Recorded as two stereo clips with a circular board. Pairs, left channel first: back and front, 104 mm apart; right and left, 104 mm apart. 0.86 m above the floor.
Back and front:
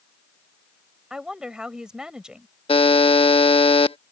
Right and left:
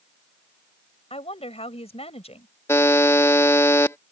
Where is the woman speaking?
80° right.